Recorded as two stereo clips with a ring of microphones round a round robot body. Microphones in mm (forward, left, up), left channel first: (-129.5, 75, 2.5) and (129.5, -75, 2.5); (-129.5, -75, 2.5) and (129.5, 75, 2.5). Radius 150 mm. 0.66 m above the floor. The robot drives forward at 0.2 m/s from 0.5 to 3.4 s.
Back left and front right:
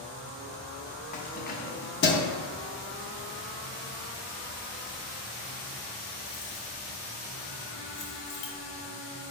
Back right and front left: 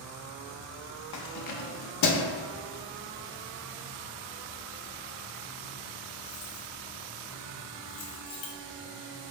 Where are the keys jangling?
150° right, 0.6 m; by 8.5 s 165° right, 0.9 m.